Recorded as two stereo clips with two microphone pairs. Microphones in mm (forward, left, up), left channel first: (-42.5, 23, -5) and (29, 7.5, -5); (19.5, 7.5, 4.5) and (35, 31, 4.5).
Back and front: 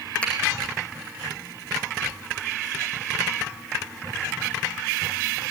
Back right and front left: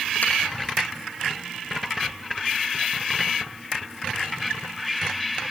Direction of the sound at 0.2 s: 120° right.